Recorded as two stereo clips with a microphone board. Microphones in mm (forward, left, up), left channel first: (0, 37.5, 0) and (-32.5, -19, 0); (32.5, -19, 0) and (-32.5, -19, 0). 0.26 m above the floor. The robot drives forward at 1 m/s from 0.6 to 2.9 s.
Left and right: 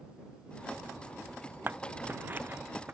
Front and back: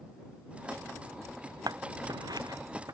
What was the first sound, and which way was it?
Scissors, straight behind.